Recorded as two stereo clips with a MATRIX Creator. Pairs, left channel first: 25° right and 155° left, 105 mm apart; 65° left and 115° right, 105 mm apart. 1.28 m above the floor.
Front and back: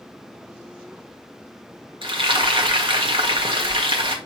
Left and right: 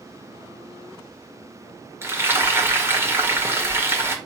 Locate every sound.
2.0 s frying: 175° right, 1.7 m